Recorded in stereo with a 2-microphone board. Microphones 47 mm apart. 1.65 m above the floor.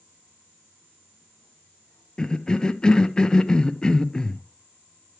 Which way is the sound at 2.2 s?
15° left (ahead or behind).